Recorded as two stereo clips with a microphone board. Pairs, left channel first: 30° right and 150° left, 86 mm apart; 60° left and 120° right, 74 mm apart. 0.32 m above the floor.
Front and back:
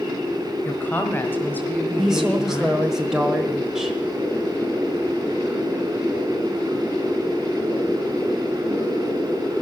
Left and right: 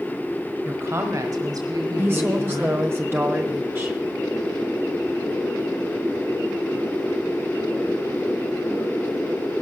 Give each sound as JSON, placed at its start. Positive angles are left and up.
{"t": 0.7, "sound": "a woman speaking", "azimuth_deg": -80, "distance_m": 1.0}
{"t": 2.0, "sound": "a woman speaking", "azimuth_deg": -135, "distance_m": 1.1}